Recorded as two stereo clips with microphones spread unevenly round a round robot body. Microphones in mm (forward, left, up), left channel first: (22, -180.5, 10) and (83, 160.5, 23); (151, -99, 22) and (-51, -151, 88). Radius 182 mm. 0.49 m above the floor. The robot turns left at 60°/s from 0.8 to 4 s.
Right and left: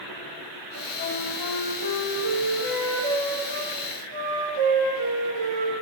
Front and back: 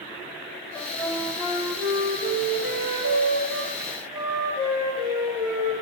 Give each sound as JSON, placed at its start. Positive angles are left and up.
{"t": 0.8, "sound": "a flute", "azimuth_deg": -55, "distance_m": 5.5}